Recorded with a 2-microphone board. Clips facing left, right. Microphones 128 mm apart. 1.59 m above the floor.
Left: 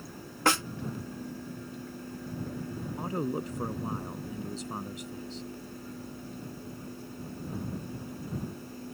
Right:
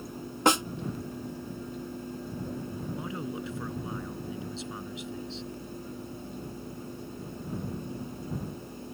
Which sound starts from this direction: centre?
A snare drum, at 0.5 s.